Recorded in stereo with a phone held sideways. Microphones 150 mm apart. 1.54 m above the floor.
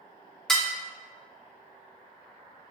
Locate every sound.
0.5 s dishes clattering: 5° left (ahead or behind), 0.7 m